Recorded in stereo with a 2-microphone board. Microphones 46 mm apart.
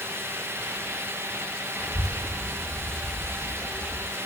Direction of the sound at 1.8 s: Centre (ahead or behind).